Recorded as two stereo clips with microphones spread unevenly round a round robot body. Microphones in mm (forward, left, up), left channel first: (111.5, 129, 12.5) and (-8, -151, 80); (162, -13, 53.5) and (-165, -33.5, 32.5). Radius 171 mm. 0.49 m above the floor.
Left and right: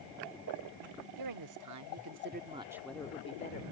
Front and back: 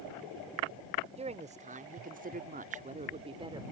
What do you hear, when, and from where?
1.2 s a woman speaking: 110° right; by 3.6 s 110° left